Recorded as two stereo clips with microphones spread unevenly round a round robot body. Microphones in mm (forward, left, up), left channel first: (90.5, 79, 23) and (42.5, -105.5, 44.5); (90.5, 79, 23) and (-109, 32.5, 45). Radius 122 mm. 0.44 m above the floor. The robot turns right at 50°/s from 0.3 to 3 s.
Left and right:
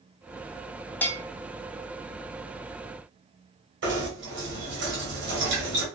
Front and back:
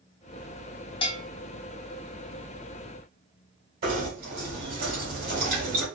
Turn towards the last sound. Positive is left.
turn(degrees=-120)